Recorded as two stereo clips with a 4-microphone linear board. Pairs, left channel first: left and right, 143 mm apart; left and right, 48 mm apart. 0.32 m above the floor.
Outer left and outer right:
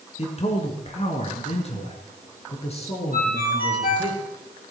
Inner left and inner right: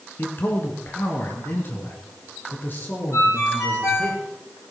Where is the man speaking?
45° left (ahead or behind), 3 m.